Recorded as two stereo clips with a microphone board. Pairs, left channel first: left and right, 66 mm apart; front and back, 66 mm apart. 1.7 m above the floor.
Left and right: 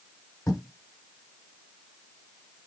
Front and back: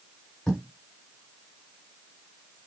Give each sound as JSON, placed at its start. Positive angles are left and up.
{"t": 0.5, "sound": "writing", "azimuth_deg": 70, "distance_m": 2.5}